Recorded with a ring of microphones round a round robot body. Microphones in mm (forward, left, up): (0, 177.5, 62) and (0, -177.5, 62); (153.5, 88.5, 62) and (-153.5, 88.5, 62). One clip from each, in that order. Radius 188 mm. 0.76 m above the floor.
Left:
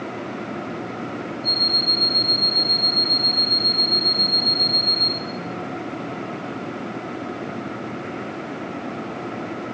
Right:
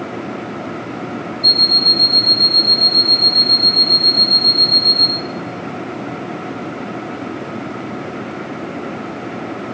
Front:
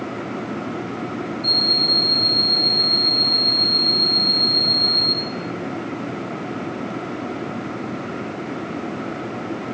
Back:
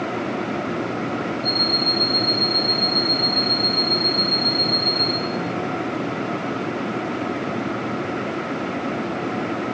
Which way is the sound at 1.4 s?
90° right.